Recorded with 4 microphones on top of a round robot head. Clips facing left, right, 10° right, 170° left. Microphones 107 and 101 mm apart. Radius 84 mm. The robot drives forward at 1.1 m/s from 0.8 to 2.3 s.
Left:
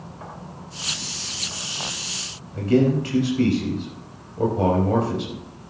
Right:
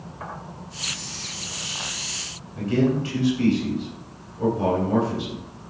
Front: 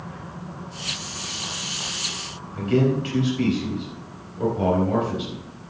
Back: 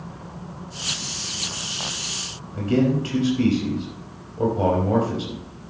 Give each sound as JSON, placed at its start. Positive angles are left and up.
{"t": 2.5, "sound": "a man speaking", "azimuth_deg": 120, "distance_m": 4.5}